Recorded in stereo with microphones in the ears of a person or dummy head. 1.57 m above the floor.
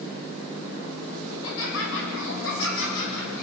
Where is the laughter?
80° left, 9 m; by 3.4 s 85° left, 11 m.